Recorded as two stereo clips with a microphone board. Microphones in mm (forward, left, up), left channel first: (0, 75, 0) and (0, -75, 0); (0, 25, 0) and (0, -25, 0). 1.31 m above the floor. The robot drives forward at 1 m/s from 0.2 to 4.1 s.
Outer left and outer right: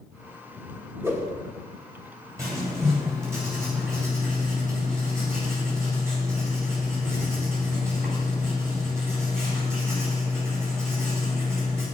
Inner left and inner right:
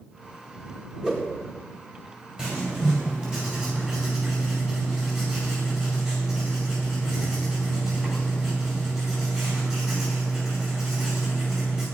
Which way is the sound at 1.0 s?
15° right (ahead or behind).